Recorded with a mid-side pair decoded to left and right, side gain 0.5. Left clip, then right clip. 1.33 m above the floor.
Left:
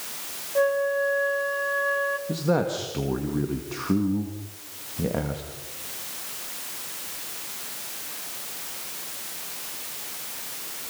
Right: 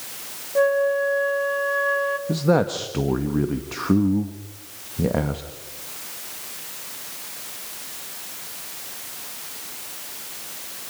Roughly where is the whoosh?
No whoosh in this recording.